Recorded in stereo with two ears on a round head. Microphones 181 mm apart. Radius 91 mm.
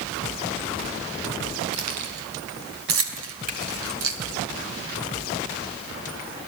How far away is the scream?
I don't hear a scream.